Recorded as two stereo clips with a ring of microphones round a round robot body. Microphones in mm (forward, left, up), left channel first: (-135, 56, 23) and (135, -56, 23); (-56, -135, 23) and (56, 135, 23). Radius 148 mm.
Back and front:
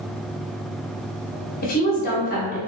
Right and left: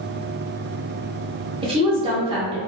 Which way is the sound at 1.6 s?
125° left.